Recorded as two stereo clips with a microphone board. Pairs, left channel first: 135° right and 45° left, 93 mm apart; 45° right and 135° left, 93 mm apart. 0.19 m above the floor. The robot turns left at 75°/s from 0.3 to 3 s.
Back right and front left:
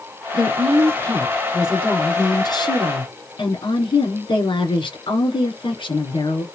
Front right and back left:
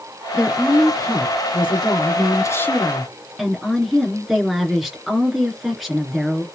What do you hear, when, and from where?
0.3 s a woman speaking: 60° left, 2.5 m; by 6.4 s 140° right, 2.5 m